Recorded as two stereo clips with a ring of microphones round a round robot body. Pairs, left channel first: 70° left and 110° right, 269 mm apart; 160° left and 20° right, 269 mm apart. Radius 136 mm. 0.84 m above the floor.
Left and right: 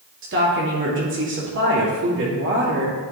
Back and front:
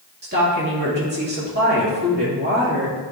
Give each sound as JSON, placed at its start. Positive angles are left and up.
{"t": 0.2, "sound": "a woman speaking", "azimuth_deg": -70, "distance_m": 2.0}